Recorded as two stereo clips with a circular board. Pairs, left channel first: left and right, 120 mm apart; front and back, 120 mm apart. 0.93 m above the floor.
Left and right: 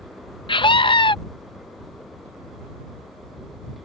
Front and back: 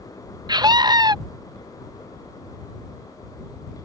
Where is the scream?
130° left.